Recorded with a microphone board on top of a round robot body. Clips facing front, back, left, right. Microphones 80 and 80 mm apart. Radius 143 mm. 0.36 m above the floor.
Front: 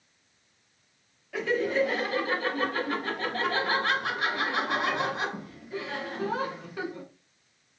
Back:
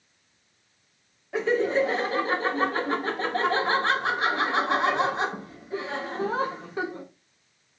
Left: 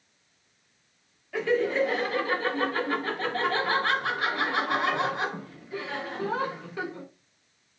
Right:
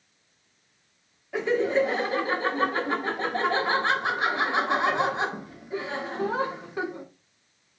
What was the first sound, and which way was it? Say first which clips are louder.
Laughter: back 3 dB, right 1 dB; 140° right.